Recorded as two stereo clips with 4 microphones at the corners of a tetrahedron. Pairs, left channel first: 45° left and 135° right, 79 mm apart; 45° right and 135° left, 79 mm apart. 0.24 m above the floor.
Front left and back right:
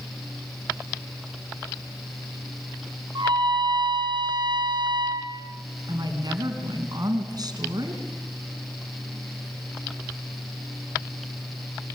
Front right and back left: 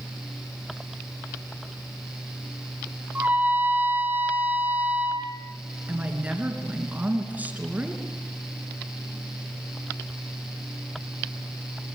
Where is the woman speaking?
155° right, 3 m.